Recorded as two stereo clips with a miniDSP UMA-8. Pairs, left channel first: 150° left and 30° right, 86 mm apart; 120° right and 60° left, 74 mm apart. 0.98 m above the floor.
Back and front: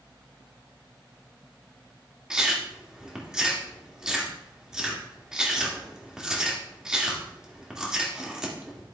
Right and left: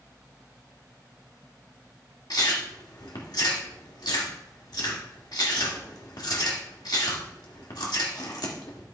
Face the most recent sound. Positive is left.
turn(degrees=-110)